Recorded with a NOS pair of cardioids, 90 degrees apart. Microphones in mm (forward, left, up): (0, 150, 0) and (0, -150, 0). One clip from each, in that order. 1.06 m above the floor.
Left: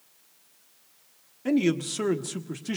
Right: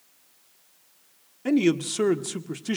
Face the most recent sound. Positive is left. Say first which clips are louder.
# right 2 dB
turn(degrees=-15)